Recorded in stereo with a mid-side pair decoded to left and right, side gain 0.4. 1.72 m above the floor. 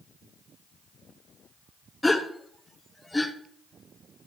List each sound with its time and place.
2.0 s a gasp: 15° left, 1.2 m